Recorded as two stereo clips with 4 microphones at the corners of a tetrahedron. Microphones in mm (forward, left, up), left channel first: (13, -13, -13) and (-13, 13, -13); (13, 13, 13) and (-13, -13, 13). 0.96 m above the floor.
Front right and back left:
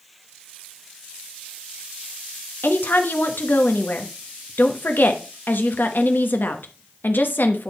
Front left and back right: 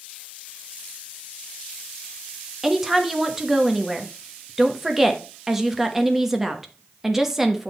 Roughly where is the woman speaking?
Ahead right.